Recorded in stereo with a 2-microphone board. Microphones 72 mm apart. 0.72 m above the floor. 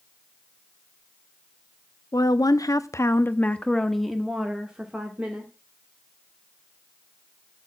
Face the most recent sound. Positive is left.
turn(degrees=-20)  # may be behind; listen again after turning